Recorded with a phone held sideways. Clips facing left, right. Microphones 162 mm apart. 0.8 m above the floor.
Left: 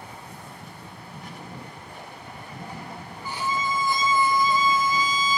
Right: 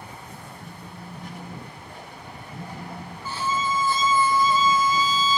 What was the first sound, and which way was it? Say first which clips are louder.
A phone buzzing: right 2 dB; 25° right (ahead or behind).